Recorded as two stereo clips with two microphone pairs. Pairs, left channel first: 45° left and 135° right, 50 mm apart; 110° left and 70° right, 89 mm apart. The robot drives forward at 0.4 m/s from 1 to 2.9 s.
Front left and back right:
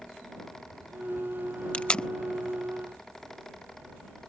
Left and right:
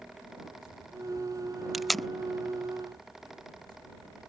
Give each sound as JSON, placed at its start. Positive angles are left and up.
{"t": 1.7, "sound": "tape being pulled", "azimuth_deg": 15}